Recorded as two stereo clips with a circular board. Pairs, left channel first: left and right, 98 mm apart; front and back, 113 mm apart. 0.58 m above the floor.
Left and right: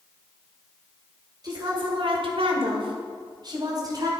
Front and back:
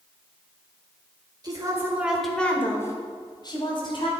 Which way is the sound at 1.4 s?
130° right.